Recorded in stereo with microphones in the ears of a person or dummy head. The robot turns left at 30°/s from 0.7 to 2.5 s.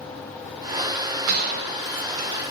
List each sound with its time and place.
1.3 s a gunshot: 50° right (ahead or behind), 0.7 m; by 2.5 s 55° right (ahead or behind), 0.7 m